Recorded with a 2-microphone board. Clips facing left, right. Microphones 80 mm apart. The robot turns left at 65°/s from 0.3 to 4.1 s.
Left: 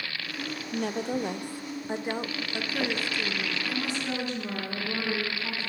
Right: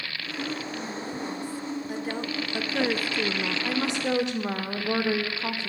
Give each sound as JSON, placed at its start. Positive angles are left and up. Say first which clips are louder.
{"t": 0.7, "sound": "a woman speaking", "louder": "left 4 dB", "azimuth_deg": 105, "distance_m": 0.5}
{"t": 3.6, "sound": "a woman speaking", "louder": "right 5 dB", "side_deg": -55, "distance_m": 1.3}